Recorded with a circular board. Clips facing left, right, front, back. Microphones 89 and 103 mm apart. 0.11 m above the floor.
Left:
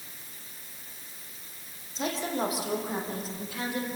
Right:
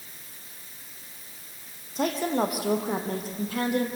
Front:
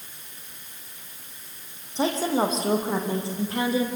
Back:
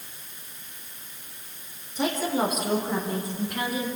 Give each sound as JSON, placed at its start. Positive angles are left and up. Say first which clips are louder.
{"t": 1.9, "sound": "a woman speaking", "louder": "right 5 dB, front 2 dB", "azimuth_deg": -60, "distance_m": 3.5}